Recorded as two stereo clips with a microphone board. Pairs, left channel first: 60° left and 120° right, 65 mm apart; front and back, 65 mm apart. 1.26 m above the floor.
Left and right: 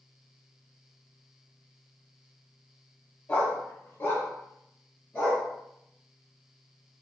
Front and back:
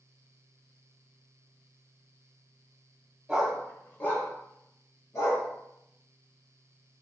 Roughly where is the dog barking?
Left.